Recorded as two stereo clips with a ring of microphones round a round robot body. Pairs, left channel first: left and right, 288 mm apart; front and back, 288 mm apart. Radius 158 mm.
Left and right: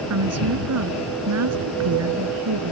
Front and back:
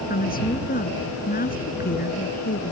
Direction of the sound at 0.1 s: 60° right.